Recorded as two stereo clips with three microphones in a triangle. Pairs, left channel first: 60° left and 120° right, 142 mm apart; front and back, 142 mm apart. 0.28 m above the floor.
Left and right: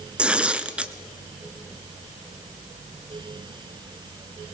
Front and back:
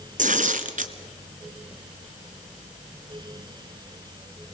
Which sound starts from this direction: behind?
Tearing paper, at 0.2 s.